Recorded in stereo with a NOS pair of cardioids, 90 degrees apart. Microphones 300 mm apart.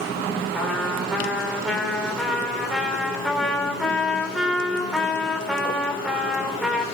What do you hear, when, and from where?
0.5 s a trumpet: straight ahead, 3 m